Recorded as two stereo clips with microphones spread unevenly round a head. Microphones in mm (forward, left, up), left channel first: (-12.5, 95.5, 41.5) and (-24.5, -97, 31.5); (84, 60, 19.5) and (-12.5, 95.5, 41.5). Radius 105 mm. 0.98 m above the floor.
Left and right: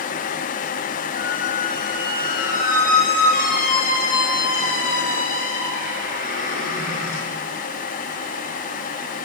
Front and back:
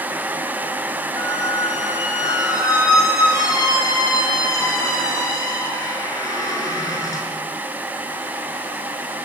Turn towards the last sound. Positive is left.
turn(degrees=35)